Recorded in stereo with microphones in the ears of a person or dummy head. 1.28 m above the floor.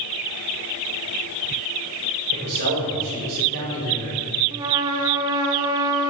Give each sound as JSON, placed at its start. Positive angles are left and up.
{"t": 2.3, "sound": "a man speaking", "side_deg": -70, "distance_m": 5.5}
{"t": 4.5, "sound": "a trumpet", "side_deg": -20, "distance_m": 1.3}